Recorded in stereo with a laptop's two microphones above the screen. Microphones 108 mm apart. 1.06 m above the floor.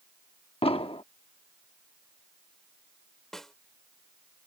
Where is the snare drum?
5° left (ahead or behind).